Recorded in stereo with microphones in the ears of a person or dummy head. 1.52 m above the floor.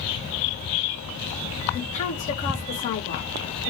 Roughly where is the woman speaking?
Left.